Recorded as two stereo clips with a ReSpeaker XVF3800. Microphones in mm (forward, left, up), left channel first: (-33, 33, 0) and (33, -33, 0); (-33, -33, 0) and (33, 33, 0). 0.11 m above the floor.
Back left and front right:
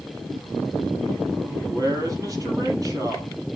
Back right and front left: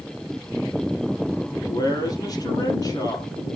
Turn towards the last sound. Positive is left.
turn(degrees=-90)